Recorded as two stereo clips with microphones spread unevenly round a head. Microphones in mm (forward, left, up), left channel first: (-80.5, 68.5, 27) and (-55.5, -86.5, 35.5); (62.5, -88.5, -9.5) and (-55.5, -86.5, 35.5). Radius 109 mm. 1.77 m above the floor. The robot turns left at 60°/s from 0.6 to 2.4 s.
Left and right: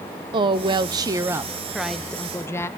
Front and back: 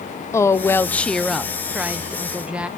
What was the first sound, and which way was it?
A woman speaking, 85° right.